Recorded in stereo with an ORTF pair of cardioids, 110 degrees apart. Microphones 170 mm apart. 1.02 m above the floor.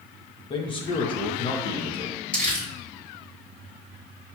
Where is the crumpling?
10° left, 1.4 m.